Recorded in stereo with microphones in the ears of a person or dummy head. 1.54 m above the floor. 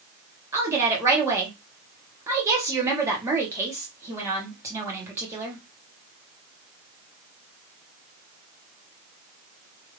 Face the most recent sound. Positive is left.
turn(degrees=-15)  # may be behind; listen again after turning